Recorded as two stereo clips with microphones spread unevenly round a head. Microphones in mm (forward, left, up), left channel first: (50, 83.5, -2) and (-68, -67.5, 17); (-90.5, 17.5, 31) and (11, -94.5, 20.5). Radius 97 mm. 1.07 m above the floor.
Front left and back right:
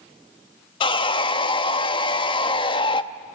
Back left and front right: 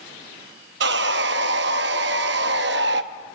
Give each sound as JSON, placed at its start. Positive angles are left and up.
{"t": 0.8, "sound": "sawing", "azimuth_deg": -15, "distance_m": 0.6}